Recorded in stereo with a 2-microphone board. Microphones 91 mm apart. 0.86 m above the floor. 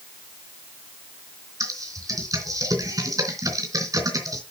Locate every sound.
1.6 s typing on a keyboard: 40° right (ahead or behind), 3 m